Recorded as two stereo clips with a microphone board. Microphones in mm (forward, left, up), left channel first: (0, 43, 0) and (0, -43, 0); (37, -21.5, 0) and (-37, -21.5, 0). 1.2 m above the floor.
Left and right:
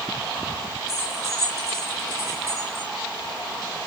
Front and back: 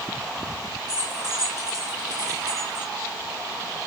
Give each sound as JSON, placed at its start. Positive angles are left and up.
{"t": 0.9, "sound": "keys jangling", "azimuth_deg": -150, "distance_m": 6.0}